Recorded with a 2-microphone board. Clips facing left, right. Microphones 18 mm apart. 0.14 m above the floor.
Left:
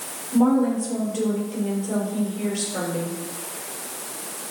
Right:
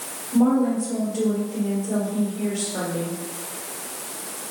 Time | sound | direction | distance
0.3 | a woman speaking | 20° left (ahead or behind) | 4 m